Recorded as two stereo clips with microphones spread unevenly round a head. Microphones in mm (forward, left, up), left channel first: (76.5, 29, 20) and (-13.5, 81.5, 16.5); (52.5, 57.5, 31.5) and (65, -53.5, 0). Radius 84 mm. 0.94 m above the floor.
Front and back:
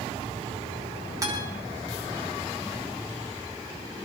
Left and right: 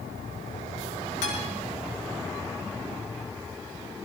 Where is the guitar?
95° left, 7.5 m.